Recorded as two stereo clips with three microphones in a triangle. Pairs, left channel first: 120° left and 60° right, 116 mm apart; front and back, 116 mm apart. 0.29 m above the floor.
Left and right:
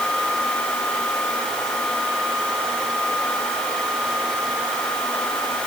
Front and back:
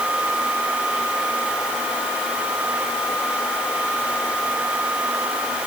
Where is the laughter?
I don't hear laughter.